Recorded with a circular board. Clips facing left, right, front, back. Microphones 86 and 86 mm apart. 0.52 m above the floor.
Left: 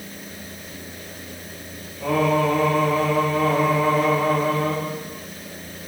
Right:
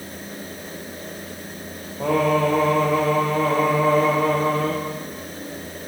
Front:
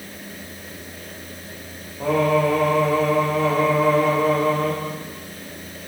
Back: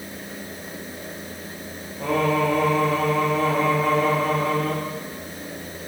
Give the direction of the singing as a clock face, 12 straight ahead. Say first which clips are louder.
Right 1 dB, front 3 dB; 3 o'clock.